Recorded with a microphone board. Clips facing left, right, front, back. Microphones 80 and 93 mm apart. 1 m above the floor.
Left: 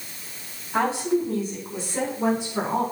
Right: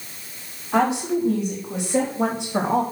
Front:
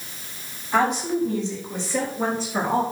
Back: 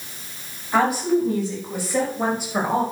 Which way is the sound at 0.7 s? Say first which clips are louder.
Right 2 dB, back 2 dB; 95° right.